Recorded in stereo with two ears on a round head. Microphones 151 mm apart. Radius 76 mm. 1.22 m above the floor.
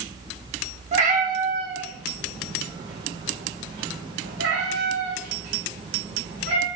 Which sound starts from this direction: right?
A cat meowing, at 0.9 s.